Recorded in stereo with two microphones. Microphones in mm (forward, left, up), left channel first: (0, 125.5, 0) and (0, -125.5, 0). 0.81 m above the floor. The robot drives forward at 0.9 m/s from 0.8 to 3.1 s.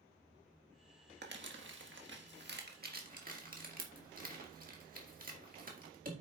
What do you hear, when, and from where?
1.2 s crumpling: 45° right (ahead or behind), 1.4 m; by 6.1 s 35° right (ahead or behind), 1.8 m